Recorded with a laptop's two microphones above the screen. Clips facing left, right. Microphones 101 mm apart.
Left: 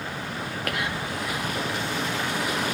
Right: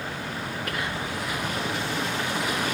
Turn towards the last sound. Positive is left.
turn(degrees=70)  # may be behind; listen again after turning